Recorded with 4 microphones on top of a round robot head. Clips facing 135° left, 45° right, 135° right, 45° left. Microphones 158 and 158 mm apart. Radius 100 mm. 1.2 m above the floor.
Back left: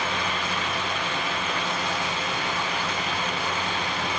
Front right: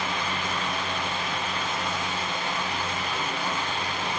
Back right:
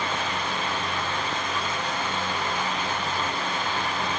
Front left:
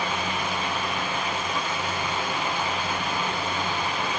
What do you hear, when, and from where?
Only background noise.